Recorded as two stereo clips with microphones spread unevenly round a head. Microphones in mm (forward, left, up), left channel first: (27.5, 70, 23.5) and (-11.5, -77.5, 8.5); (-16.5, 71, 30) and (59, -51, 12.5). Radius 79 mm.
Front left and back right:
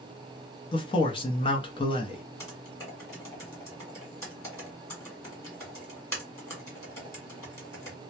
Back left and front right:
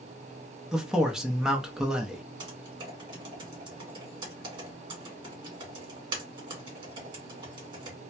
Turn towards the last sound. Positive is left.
turn(degrees=0)